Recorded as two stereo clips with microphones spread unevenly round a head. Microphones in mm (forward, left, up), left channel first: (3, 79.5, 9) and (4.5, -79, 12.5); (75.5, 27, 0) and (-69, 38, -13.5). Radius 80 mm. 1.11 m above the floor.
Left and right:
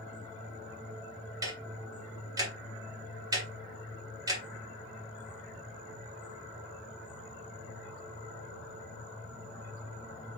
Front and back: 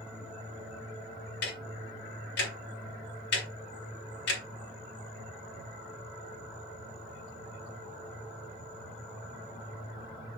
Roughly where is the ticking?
Ahead.